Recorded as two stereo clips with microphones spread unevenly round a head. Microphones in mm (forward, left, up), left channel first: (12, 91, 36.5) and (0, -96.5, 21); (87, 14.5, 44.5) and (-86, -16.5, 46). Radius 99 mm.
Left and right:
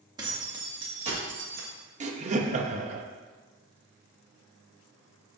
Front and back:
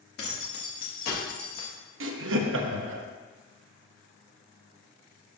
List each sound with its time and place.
0.2 s keys jangling: 20° right, 2.5 m; by 1.7 s 50° right, 1.6 m
2.0 s laughter: 150° right, 1.0 m